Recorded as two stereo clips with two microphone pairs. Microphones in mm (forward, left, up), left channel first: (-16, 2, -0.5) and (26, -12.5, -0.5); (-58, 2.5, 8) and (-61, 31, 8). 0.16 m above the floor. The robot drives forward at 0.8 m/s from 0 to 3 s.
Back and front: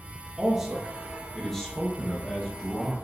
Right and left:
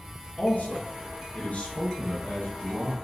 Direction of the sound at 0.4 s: 85° right.